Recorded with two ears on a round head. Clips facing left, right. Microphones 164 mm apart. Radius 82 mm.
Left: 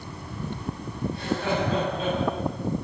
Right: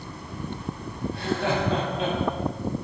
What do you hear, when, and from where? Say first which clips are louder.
1.1 s laughter: right 1 dB; 55° right (ahead or behind), 6 m